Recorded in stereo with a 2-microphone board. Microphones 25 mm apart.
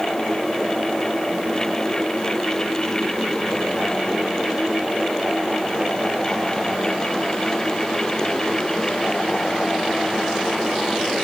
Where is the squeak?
I don't hear a squeak.